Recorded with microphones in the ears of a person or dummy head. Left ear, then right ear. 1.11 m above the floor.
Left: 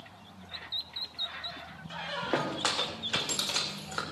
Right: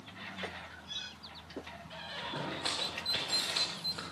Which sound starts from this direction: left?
A squeak, at 1.9 s.